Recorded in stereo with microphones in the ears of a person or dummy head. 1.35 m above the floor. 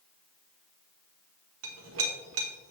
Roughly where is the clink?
Right.